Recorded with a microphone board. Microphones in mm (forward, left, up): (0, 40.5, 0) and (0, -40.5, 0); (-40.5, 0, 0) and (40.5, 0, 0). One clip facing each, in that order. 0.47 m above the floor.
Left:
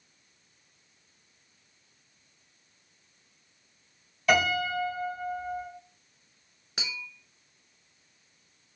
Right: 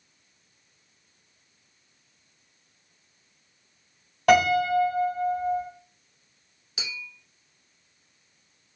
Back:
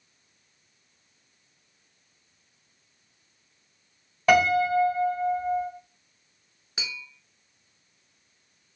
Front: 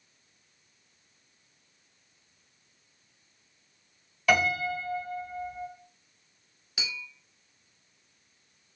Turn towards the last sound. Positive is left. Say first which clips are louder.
# even, even
turn(degrees=125)